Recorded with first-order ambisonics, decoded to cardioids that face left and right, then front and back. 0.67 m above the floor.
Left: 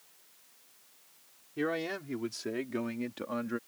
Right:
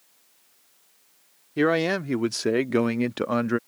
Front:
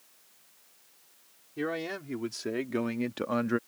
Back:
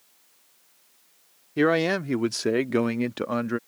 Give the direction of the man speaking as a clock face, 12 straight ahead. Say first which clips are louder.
Right 11 dB, back 12 dB; 5 o'clock.